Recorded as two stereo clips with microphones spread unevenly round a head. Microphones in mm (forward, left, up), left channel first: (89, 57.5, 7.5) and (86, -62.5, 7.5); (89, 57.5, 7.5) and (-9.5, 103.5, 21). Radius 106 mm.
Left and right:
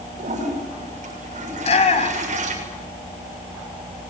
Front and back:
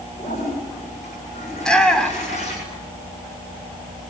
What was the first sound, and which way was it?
A toilet flushing, 80° right.